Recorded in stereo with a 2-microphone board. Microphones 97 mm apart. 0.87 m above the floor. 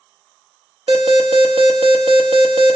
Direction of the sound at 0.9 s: 70° right (ahead or behind).